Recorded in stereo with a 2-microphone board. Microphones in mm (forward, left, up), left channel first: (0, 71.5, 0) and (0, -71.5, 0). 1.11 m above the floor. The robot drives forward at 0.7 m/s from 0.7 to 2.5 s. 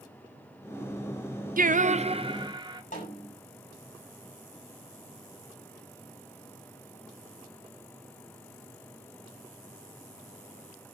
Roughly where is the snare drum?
Left.